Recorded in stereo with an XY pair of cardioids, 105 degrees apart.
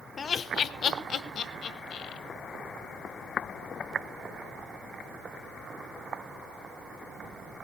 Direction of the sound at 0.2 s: 40° left.